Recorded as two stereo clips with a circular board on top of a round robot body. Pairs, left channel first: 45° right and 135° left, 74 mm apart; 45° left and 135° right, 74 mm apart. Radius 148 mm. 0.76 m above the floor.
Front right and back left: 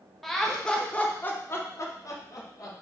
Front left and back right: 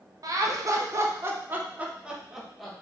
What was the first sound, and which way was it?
Laughter, 135° right.